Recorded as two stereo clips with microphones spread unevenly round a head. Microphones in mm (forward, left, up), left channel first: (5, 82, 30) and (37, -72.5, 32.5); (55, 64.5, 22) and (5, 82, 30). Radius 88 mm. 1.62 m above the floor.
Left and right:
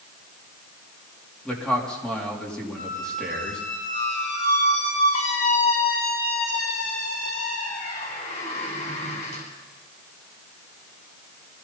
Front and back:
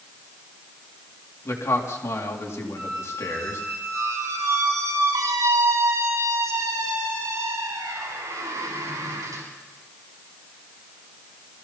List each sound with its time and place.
1.4 s a man speaking: 15° left, 3.5 m
2.8 s a squeak: 155° left, 4.5 m